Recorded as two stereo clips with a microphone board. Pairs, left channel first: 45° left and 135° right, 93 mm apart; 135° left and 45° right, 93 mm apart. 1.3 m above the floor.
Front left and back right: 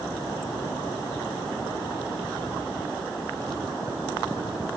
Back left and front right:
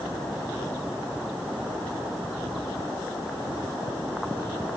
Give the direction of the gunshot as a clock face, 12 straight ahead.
I don't hear a gunshot.